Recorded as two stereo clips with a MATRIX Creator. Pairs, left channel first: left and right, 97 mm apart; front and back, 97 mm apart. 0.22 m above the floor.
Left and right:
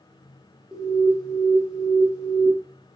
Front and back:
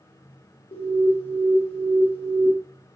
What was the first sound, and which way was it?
An alarm, 10° right.